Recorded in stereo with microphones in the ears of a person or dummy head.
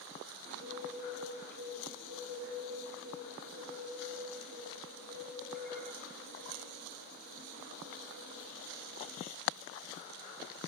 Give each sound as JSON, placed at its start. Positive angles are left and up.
{"t": 0.5, "sound": "a bird", "side_deg": -60, "distance_m": 7.0}